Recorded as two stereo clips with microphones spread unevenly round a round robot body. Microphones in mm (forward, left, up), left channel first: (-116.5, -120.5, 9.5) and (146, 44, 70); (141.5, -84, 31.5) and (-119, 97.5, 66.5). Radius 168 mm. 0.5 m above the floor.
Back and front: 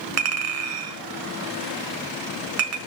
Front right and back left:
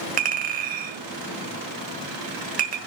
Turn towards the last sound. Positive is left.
turn(degrees=80)